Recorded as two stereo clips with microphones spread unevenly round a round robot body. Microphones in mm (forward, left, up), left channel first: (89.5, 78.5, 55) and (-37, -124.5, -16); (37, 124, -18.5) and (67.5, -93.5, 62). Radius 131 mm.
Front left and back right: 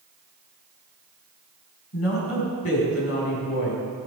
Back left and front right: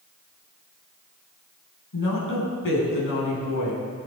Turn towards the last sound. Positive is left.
turn(degrees=100)